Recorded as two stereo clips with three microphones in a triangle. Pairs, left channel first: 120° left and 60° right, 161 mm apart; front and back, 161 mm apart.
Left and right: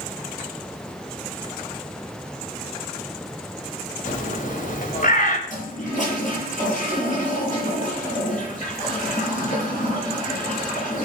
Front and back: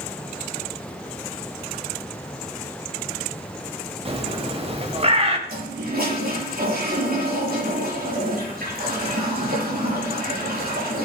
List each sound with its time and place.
4.0 s a bird: 135° left, 2 m
5.5 s a toilet flushing: 160° left, 7.5 m